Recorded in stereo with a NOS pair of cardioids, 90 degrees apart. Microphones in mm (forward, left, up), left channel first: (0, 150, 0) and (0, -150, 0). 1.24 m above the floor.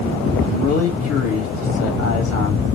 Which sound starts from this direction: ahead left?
A man speaking, at 0.4 s.